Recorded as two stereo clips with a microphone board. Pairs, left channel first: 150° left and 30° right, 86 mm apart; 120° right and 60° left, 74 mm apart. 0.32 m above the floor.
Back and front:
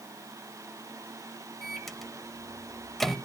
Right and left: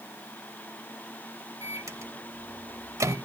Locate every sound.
1.6 s a microwave: 60° left, 0.8 m